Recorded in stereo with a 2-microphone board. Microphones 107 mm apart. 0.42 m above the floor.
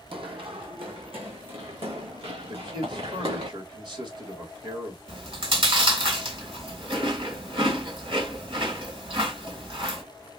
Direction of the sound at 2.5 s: 50° right (ahead or behind).